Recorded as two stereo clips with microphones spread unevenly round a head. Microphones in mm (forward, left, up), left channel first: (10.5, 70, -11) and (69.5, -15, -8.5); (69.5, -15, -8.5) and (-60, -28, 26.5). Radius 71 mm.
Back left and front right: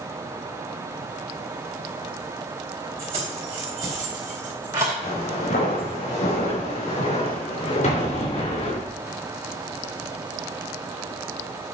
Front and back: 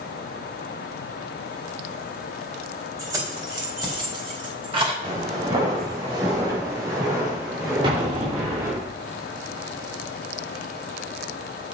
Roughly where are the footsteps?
Behind left.